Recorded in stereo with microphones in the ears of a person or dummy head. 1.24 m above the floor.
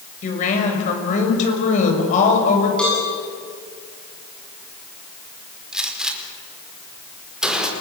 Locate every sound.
0.2 s a woman speaking: 45° left (ahead or behind), 6.5 m
2.8 s a cowbell: 5° left (ahead or behind), 7 m
5.7 s a gunshot: 5° right (ahead or behind), 4.5 m